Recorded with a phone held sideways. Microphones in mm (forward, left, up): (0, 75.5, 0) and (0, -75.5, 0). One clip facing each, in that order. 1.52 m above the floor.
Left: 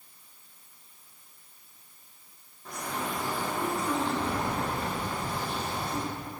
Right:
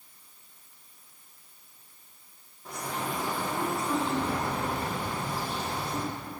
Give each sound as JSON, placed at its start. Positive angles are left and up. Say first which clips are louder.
{"t": 2.6, "sound": "a bird", "louder": "even", "side_deg": -5, "distance_m": 2.5}